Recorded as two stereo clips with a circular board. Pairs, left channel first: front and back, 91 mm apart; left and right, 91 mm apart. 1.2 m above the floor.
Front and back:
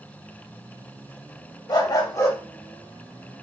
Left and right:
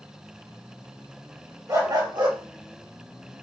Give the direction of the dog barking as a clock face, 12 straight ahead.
1 o'clock.